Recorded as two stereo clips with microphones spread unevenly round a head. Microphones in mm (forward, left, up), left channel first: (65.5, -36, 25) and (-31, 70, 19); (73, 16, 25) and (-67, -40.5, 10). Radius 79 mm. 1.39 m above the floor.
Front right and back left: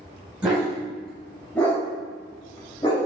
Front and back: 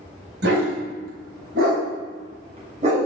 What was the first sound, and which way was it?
A dog barking, 145° right.